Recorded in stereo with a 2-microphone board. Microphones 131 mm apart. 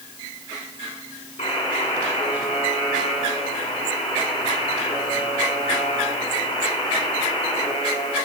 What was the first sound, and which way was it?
A buzzer, 65° left (ahead or behind).